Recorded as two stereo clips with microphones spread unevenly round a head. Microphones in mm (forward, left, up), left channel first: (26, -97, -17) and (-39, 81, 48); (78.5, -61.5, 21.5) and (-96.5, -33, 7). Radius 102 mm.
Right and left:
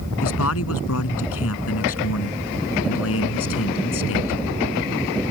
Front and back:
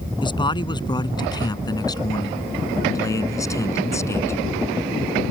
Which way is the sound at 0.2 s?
70° right.